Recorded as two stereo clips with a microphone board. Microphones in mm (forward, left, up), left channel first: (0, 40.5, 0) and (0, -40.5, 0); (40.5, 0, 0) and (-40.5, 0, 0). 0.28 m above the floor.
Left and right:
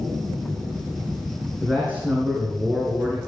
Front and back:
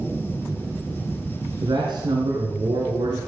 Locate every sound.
1.6 s a man speaking: 165° right, 3.5 m